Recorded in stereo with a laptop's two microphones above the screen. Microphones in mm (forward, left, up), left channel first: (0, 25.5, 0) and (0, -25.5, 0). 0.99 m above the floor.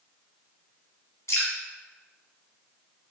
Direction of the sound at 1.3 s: 70° left (ahead or behind).